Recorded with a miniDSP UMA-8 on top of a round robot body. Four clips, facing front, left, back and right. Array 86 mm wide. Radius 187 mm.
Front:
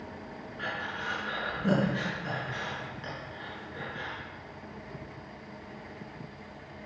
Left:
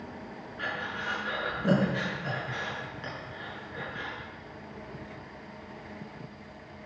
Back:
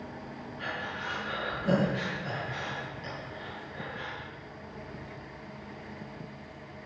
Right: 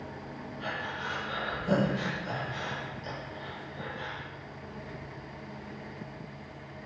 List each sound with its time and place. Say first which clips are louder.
0.6 s breathing: left 2 dB, front 1 dB; 60° left, 6 m